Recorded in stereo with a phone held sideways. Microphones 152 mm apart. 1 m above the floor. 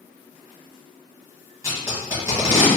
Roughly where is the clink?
No clink in this recording.